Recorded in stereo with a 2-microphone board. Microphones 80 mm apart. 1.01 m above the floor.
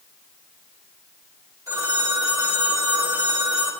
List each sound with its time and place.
1.7 s a phone ringing: 35° right (ahead or behind), 2 m